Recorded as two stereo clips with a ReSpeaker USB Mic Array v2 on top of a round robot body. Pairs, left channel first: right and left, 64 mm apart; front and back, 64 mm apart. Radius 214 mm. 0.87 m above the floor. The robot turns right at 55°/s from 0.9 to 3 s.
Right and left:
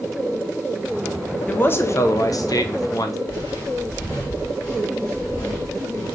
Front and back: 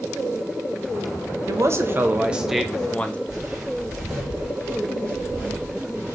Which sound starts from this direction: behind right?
A man speaking, at 1.5 s.